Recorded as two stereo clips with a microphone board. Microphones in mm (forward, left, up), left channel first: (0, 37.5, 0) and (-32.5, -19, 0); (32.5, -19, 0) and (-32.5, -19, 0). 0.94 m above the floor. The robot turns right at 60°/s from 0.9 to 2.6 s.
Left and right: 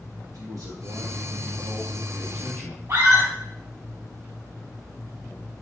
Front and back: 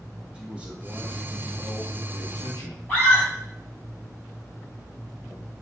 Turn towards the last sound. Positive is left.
turn(degrees=-85)